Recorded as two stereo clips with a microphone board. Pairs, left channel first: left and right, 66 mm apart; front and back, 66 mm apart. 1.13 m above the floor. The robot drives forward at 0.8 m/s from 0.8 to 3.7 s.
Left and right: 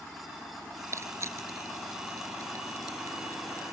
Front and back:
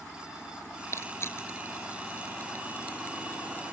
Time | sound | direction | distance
0.9 | crushing | 45° right | ?